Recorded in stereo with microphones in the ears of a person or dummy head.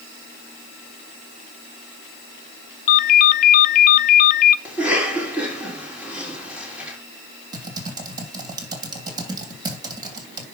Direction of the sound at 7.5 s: 20° right (ahead or behind).